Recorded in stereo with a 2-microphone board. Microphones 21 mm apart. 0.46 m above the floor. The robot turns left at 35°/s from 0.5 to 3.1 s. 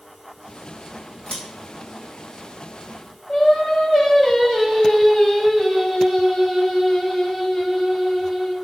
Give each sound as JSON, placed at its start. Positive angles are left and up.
{"t": 1.3, "sound": "scissors", "side_deg": 50, "distance_m": 0.9}
{"t": 3.3, "sound": "singing", "side_deg": 30, "distance_m": 0.7}